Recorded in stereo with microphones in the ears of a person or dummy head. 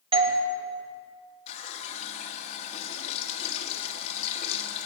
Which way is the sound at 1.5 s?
40° left (ahead or behind).